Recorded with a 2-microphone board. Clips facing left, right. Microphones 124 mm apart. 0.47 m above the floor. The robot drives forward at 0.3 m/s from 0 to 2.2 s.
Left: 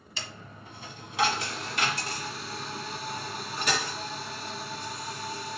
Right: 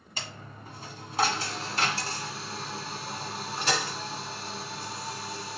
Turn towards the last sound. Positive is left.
turn(degrees=-30)  # may be behind; listen again after turning